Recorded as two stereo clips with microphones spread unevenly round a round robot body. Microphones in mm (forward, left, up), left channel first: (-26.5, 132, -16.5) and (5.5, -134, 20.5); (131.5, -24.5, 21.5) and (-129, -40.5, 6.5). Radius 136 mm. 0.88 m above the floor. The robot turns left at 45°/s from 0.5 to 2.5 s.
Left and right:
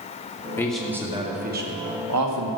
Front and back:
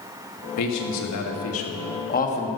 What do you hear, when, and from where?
0.6 s a man speaking: 20° left, 1.9 m; by 2.5 s 65° right, 1.9 m